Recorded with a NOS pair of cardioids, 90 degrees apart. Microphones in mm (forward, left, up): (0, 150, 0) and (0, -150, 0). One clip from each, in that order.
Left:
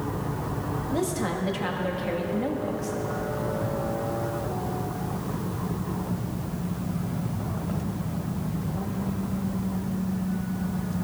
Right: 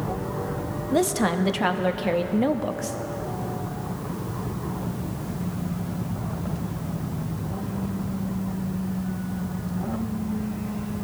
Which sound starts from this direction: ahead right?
A woman speaking, at 0.9 s.